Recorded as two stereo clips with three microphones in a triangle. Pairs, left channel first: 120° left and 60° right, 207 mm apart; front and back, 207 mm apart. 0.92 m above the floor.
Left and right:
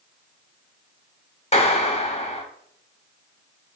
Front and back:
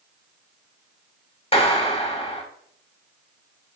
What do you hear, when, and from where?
1.5 s a clap: 60° left, 1.5 m